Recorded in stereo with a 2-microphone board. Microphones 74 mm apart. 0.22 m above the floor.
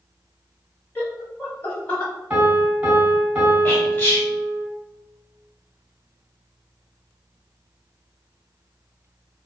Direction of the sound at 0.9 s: 25° left (ahead or behind).